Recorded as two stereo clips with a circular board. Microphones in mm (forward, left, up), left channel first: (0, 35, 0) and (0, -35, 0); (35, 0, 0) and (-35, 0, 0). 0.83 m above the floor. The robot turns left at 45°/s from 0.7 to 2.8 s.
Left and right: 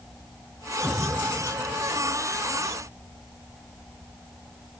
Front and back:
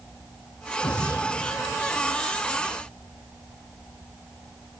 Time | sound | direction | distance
0.8 | an explosion | straight ahead | ?